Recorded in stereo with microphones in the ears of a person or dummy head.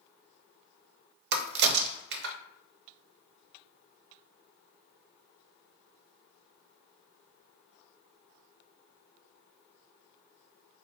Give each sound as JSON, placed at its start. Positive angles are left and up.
{"t": 1.3, "sound": "a crack", "side_deg": -60, "distance_m": 0.6}